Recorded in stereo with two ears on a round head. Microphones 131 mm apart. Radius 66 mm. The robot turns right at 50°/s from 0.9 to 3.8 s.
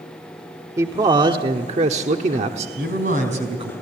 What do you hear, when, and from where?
0.8 s a man speaking: 150° right, 1.1 m; by 2.7 s 60° right, 1.1 m
2.8 s a man speaking: 80° right, 4.5 m; by 3.7 s 35° right, 4.5 m